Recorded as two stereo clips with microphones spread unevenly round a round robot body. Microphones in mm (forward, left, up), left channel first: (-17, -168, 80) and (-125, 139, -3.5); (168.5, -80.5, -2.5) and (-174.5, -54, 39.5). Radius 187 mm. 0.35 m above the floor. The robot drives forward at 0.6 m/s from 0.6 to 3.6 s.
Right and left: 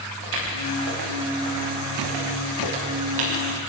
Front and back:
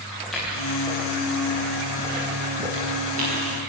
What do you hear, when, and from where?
0.2 s footsteps: 85° left, 9 m; by 3.4 s 110° left, 9.5 m